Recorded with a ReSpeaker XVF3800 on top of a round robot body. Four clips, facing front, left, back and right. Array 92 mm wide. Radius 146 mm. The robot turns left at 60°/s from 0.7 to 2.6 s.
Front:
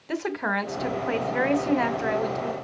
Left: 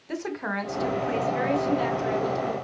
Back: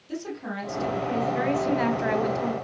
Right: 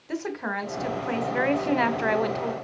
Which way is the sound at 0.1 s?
5° right.